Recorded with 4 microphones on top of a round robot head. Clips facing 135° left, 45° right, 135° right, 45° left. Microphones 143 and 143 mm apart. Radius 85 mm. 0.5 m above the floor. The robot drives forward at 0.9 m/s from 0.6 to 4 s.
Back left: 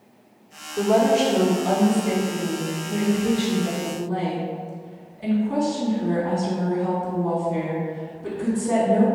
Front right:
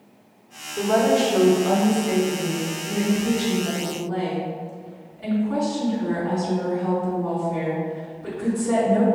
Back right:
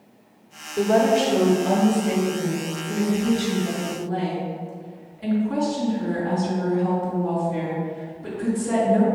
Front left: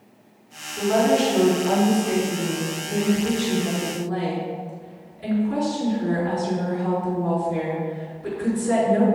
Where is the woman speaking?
145° right, 1.5 m; by 9.1 s 170° right, 4 m.